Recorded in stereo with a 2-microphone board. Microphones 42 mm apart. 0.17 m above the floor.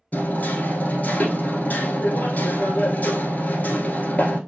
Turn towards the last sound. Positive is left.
turn(degrees=40)  # may be behind; listen again after turning